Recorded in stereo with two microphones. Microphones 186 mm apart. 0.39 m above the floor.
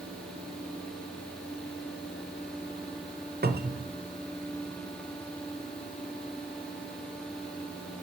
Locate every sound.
3.4 s a cupboard door: 60° right (ahead or behind), 0.8 m